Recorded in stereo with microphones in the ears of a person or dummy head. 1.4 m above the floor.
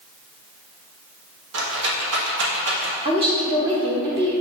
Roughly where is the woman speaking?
Right.